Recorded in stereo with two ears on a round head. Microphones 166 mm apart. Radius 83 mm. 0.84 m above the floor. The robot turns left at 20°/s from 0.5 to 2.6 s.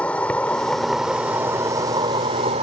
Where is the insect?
5° left; by 2.6 s 35° right.